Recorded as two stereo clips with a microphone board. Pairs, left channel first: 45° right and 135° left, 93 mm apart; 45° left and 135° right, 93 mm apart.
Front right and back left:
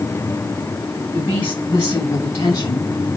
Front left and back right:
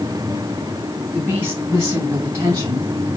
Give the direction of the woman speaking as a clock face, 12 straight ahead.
2 o'clock.